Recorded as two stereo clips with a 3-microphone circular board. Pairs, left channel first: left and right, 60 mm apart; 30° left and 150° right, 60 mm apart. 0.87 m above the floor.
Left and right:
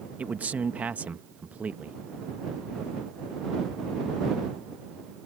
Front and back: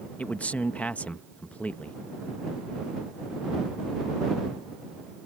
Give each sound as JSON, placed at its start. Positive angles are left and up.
{"t": 0.2, "sound": "a man speaking", "azimuth_deg": -35}